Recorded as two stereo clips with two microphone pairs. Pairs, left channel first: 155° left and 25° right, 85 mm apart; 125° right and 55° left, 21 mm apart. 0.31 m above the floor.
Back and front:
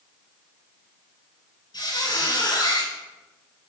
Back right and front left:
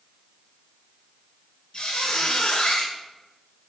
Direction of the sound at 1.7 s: 170° right.